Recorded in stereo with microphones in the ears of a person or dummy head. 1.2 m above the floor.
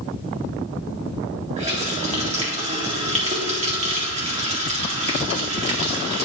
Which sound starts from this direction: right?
A running tap, at 1.6 s.